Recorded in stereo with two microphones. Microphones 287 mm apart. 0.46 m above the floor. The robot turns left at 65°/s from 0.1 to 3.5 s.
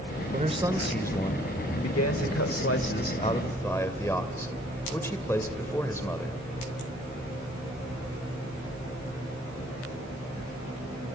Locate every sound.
0.3 s a man speaking: 145° right, 1.5 m; by 6.4 s 10° left, 1.5 m